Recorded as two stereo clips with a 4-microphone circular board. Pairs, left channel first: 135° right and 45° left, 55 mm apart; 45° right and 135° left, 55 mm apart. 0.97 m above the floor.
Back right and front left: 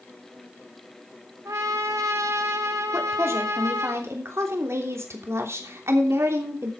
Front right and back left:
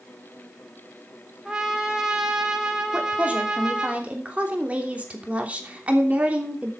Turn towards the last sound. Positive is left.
turn(degrees=70)